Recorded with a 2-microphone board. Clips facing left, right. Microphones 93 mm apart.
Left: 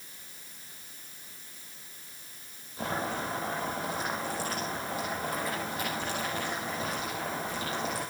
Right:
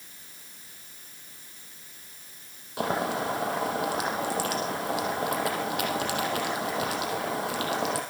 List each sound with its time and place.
2.8 s boiling: 80° right, 5 m